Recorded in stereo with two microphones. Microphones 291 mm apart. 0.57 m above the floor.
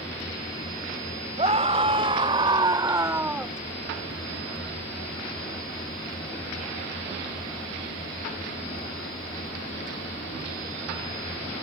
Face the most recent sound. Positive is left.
turn(degrees=-5)  # may be behind; listen again after turning